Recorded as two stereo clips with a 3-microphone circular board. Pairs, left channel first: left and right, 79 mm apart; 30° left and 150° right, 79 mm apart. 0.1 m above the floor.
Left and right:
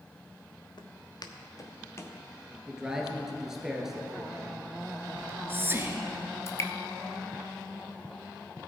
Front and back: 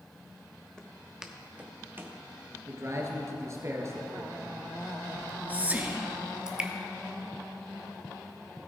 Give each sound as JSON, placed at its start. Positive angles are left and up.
{"t": 0.8, "sound": "footsteps", "azimuth_deg": 115, "distance_m": 1.2}
{"t": 2.7, "sound": "a man speaking", "azimuth_deg": -170, "distance_m": 1.8}
{"t": 5.2, "sound": "whispering", "azimuth_deg": -105, "distance_m": 1.2}
{"t": 6.5, "sound": "dripping", "azimuth_deg": 130, "distance_m": 0.9}